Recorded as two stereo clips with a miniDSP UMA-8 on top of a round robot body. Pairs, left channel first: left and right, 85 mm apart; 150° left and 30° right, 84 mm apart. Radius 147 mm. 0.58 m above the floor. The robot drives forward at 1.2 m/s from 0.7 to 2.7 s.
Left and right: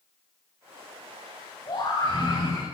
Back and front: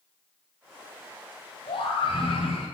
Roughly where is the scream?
Behind left.